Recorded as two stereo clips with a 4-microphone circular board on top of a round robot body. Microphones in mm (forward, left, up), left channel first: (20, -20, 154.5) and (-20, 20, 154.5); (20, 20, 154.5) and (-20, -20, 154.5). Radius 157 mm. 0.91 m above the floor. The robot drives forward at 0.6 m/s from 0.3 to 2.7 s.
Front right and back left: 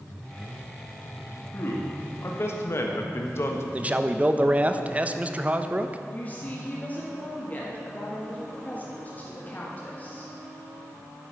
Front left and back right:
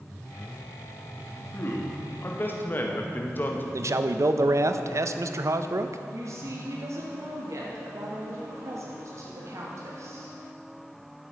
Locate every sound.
1.5 s a man speaking: 5° right, 2.0 m
3.7 s a man speaking: 165° right, 0.7 m
6.1 s a woman speaking: 110° right, 1.7 m